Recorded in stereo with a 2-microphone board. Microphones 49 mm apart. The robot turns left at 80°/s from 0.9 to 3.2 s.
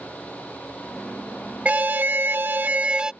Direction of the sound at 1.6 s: 40° right.